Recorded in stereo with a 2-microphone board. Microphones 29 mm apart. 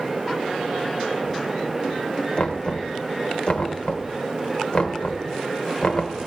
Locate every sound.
2.4 s knocking: 45° left (ahead or behind), 1.5 m